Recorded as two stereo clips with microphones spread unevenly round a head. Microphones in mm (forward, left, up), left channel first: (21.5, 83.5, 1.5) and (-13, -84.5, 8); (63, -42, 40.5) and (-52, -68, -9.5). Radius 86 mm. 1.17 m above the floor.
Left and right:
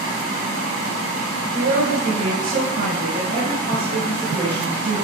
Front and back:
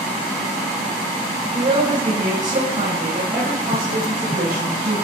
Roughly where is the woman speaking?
Behind right.